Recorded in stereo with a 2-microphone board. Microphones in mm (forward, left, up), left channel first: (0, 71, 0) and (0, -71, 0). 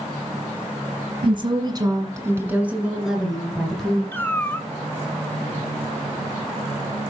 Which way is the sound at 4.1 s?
15° left (ahead or behind).